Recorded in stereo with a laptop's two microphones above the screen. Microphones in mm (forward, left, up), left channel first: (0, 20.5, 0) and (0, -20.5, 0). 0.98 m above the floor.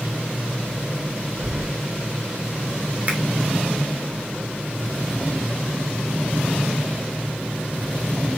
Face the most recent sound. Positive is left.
turn(degrees=-35)  # may be behind; listen again after turning